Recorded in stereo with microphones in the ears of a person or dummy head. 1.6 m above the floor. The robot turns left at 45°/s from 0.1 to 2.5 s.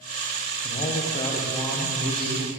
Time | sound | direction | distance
0.6 | a man speaking | 45° left | 0.8 m